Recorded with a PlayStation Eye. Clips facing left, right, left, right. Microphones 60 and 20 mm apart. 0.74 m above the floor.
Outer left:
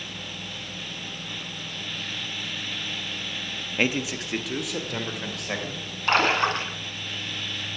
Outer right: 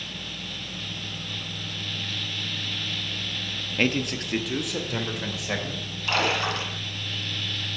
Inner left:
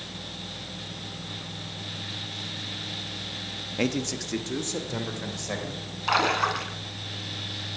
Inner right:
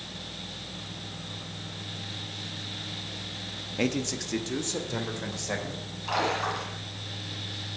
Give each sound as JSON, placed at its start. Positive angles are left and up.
{"t": 3.8, "sound": "a man speaking", "side_deg": 10, "distance_m": 0.8}
{"t": 6.1, "sound": "a splash", "side_deg": 40, "distance_m": 2.0}